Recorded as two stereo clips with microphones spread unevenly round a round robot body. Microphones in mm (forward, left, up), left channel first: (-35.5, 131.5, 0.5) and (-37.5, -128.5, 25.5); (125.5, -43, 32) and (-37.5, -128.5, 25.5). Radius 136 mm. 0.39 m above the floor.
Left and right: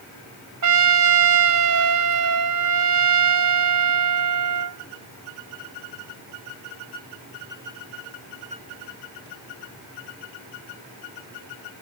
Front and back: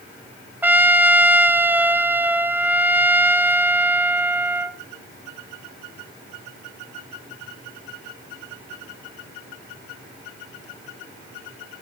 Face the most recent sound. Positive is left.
turn(degrees=-75)